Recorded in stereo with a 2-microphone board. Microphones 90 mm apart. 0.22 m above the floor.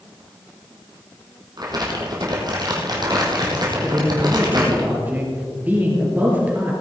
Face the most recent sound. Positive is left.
turn(degrees=-20)  # may be behind; listen again after turning